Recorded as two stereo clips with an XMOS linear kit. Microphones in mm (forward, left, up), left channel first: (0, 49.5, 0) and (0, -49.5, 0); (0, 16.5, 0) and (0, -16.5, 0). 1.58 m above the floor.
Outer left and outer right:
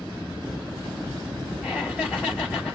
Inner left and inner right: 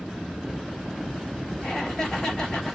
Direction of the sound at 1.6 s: 10° left (ahead or behind).